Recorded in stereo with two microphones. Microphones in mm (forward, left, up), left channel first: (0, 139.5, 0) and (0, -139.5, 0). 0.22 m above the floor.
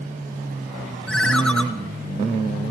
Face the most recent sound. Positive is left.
turn(degrees=0)  # may be behind; listen again after turning